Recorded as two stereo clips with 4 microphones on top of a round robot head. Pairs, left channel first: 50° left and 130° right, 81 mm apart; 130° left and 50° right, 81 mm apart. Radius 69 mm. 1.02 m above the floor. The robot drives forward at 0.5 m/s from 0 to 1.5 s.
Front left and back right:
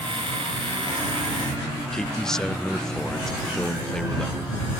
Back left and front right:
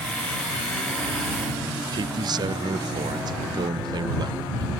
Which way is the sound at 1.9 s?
35° right.